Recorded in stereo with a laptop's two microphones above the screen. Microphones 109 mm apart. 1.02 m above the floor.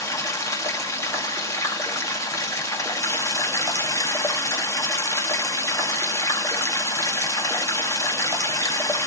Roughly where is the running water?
Left.